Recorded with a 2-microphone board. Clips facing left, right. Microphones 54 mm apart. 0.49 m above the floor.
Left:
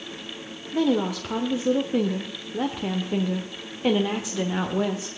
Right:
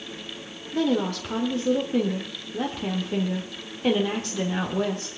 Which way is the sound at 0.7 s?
10° left (ahead or behind).